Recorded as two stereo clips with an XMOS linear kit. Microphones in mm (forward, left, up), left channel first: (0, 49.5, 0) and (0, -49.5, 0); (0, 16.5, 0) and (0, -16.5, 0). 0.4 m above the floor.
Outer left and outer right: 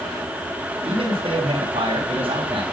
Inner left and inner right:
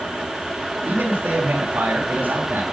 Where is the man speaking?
65° right (ahead or behind), 3 m.